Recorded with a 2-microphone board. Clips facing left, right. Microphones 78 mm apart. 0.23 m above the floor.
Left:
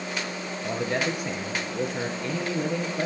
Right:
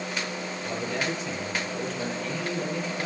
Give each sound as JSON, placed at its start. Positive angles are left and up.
{"t": 0.6, "sound": "a man speaking", "side_deg": 65, "distance_m": 3.5}